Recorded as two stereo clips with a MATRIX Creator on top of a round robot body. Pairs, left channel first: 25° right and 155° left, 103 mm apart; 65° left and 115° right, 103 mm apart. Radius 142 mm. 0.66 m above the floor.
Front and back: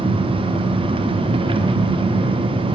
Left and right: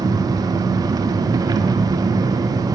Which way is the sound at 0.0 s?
165° right.